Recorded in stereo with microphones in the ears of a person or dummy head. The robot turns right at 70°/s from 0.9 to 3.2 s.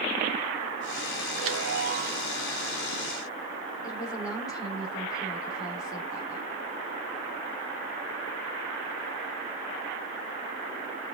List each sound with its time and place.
1.4 s a chime: 85° right, 1.6 m; by 2.3 s 15° right, 1.6 m
3.8 s a woman speaking: 20° left (ahead or behind), 4 m